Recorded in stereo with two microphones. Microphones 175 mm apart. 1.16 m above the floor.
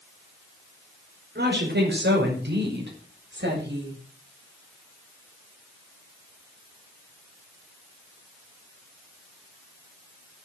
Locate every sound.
1.4 s a woman speaking: 70° right (ahead or behind), 5 m; by 4.0 s 80° right, 7.5 m